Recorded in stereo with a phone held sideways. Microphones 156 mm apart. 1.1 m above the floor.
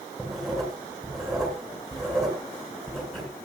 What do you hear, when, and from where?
0.2 s writing: centre (ahead or behind), 7.5 m